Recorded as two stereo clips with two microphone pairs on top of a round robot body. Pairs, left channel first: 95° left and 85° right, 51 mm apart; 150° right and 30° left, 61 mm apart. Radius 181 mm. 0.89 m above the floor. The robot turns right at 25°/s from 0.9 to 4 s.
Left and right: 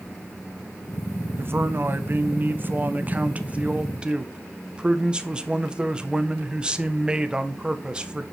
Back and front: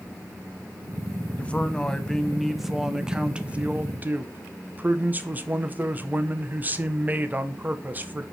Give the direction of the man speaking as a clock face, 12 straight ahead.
3 o'clock.